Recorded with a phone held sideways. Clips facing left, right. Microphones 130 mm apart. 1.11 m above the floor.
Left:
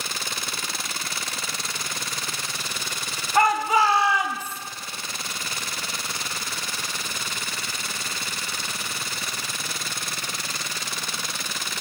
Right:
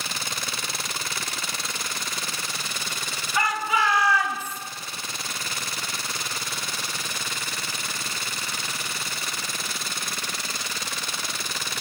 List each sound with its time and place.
3.4 s a shout: 50° left (ahead or behind), 1.9 m; by 4.6 s 5° left (ahead or behind), 1.8 m